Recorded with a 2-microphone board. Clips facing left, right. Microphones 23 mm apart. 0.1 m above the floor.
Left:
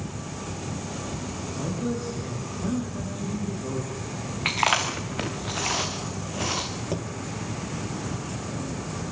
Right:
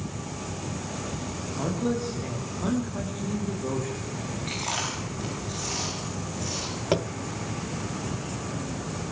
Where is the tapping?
45° right (ahead or behind), 0.7 m.